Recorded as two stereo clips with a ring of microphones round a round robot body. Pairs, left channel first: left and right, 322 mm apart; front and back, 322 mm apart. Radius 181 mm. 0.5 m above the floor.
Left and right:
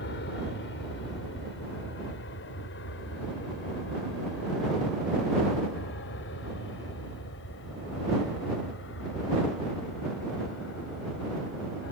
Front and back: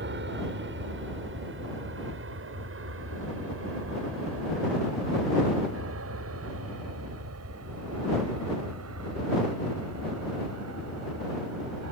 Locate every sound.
0.0 s an aircraft: 135° left; by 11.9 s 145° left